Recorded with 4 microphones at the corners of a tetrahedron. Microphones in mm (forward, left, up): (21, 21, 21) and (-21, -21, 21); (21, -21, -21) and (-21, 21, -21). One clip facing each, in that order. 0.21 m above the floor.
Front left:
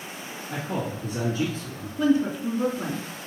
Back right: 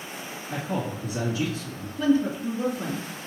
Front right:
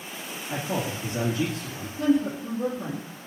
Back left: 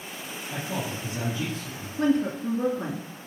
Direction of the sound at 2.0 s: 110° left.